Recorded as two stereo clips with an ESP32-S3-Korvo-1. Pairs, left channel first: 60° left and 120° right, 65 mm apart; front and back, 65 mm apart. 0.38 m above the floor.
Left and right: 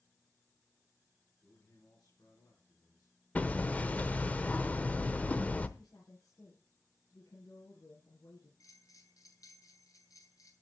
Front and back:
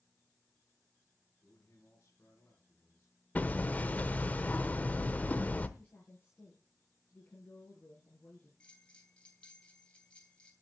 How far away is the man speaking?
About 4.5 m.